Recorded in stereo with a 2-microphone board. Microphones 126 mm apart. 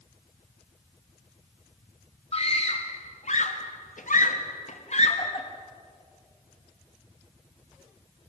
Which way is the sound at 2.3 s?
50° left (ahead or behind).